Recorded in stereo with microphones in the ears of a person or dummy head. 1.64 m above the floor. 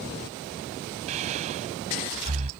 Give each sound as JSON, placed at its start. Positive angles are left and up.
{"t": 1.1, "sound": "breathing", "side_deg": -40}